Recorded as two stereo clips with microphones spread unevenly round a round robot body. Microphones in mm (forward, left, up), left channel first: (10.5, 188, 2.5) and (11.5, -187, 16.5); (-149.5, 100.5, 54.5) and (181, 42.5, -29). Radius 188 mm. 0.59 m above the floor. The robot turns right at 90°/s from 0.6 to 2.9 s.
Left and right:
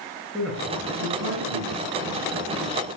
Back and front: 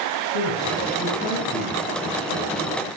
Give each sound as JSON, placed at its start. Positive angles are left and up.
{"t": 0.3, "sound": "a man speaking", "azimuth_deg": 180, "distance_m": 9.5}